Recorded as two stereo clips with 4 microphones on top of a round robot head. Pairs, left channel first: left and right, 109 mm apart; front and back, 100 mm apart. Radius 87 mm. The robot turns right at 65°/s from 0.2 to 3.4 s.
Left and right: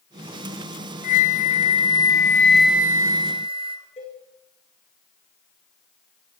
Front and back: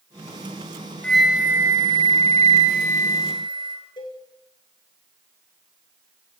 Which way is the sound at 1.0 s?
75° left.